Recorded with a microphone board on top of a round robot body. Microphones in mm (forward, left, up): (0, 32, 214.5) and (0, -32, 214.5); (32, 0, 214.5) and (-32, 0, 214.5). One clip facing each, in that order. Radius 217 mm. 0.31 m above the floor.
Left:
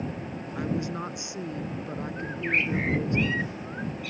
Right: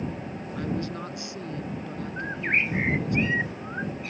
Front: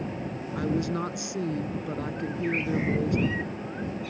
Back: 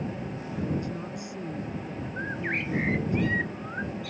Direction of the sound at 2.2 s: 150° right.